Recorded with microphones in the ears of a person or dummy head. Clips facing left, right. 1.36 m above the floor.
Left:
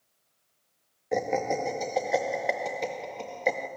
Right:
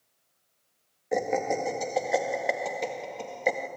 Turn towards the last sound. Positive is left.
turn(degrees=0)  # may be behind; listen again after turning